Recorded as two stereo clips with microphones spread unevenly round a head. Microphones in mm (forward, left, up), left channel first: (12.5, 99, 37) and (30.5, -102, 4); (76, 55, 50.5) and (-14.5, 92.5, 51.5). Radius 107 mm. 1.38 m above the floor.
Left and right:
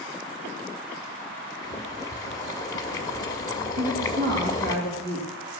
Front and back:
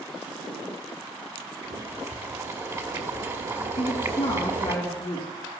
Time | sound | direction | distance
1.6 | boiling | 135° left | 1.2 m
3.8 | a woman speaking | 55° right | 3 m